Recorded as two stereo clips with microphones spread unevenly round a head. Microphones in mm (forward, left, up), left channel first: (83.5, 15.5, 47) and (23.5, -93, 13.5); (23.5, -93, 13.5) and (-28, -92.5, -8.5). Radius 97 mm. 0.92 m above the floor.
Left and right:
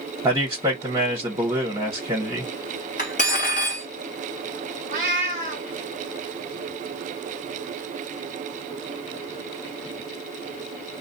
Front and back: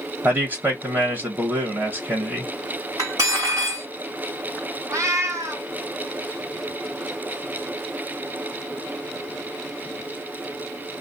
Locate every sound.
0.2 s a man speaking: 170° right, 1.3 m
3.0 s cutlery clinking: 115° left, 1.3 m
4.9 s a cat meowing: 155° right, 1.1 m